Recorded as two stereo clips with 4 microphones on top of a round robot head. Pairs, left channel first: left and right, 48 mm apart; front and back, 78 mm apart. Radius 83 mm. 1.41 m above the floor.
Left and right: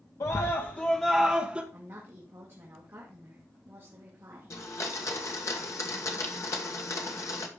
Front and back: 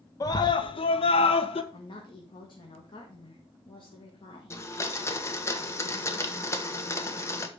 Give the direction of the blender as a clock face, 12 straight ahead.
10 o'clock.